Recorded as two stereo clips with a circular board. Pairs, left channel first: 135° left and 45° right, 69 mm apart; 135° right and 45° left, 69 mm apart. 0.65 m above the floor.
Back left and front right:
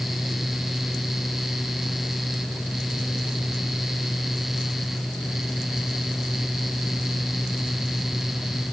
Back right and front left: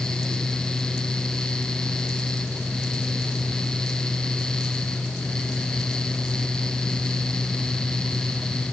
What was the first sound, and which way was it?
Only background noise.